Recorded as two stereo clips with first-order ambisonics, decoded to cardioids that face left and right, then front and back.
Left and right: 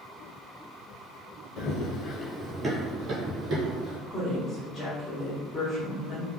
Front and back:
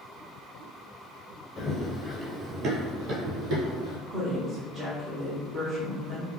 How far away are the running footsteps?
About 0.7 m.